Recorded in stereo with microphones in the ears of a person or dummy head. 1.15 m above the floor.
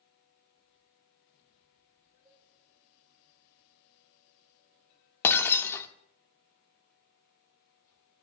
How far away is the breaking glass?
About 1.1 m.